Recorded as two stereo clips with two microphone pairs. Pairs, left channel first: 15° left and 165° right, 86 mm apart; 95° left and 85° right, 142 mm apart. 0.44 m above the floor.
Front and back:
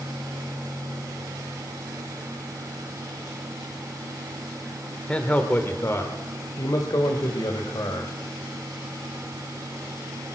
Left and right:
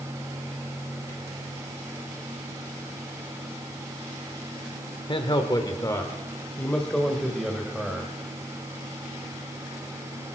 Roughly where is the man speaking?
Left.